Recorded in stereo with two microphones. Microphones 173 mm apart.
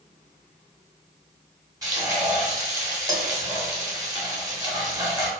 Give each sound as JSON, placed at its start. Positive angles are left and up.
{"t": 1.8, "sound": "frying", "side_deg": -20, "distance_m": 1.0}